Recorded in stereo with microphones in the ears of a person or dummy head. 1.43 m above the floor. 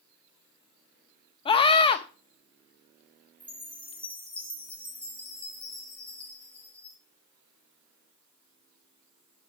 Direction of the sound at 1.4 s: 30° left (ahead or behind).